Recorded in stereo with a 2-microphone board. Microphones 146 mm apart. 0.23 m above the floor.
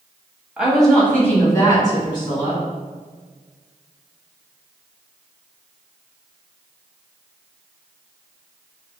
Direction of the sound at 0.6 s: 5° right (ahead or behind).